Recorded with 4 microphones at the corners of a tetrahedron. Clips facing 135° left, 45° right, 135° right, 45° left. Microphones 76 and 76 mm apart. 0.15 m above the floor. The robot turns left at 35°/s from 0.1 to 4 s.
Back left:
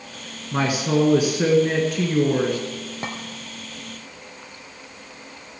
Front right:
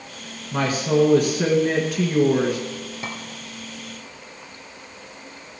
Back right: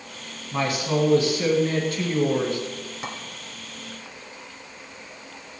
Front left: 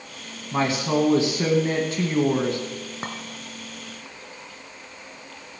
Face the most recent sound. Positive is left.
turn(degrees=60)